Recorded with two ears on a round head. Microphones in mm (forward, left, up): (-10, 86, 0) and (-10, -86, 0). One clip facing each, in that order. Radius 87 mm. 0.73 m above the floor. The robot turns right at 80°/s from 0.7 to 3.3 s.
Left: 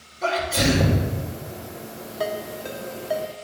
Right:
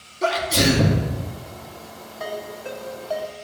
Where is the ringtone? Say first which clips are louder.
Left 3 dB; 70° left (ahead or behind), 0.9 m; by 3.5 s 5° left (ahead or behind), 0.9 m.